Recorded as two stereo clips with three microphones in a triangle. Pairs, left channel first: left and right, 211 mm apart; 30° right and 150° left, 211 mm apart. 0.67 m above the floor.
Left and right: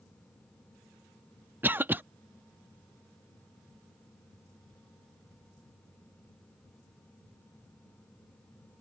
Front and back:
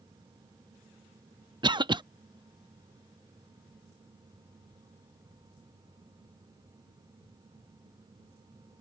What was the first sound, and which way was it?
A cough, 160° right.